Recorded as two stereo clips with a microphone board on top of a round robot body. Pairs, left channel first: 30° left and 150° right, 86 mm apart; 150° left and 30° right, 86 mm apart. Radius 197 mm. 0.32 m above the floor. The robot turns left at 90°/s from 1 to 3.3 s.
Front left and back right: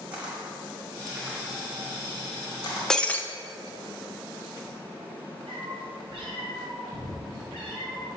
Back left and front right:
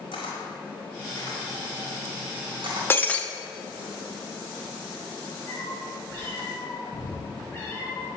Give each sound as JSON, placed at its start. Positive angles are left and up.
{"t": 0.1, "sound": "a camera shutter", "azimuth_deg": 135, "distance_m": 2.0}
{"t": 2.9, "sound": "breaking glass", "azimuth_deg": 110, "distance_m": 0.7}
{"t": 5.5, "sound": "a cat meowing", "azimuth_deg": -150, "distance_m": 1.9}